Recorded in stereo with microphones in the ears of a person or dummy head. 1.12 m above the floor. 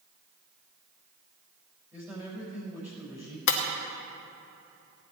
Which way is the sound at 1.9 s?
15° right (ahead or behind).